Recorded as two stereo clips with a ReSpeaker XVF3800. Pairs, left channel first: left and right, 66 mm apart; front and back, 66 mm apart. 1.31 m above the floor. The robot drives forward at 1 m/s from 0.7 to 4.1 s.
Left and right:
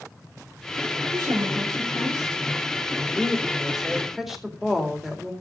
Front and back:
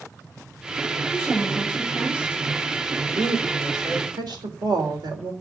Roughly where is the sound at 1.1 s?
Right.